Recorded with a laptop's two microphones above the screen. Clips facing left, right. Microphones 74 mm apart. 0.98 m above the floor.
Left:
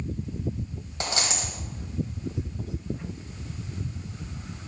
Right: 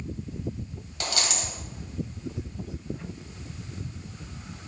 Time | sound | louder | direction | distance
1.0 | a dropped coin | left 1 dB | 30° left (ahead or behind) | 1.4 m